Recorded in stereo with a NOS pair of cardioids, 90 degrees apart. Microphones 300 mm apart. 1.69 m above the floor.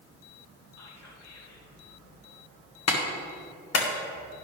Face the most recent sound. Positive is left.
turn(degrees=55)